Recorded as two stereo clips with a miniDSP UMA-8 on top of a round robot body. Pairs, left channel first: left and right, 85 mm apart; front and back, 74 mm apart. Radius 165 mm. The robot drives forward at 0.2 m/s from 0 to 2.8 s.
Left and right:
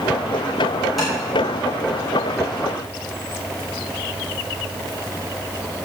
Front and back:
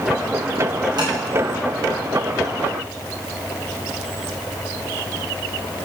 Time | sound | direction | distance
1.0 | tapping | straight behind | 5.5 m